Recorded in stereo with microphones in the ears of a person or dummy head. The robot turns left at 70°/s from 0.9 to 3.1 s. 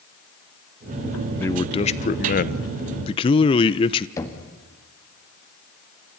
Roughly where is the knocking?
Centre.